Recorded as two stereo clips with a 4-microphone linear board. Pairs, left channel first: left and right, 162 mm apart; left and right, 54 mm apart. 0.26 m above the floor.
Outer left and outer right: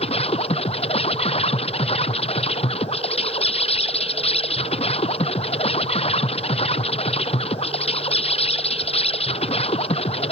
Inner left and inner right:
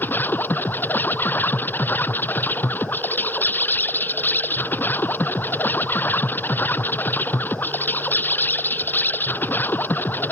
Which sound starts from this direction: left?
An insect, at 0.0 s.